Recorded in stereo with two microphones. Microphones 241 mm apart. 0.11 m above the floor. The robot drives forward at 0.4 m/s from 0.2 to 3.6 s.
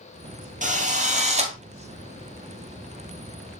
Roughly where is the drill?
Right.